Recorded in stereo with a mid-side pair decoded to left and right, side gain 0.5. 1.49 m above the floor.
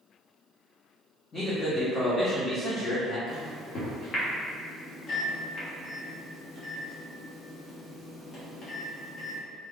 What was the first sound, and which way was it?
A man speaking, 30° left.